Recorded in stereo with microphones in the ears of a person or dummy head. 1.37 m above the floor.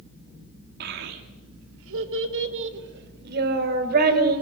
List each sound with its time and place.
0.8 s a child speaking: 65° right (ahead or behind), 2 m; by 4.4 s 50° right (ahead or behind), 5 m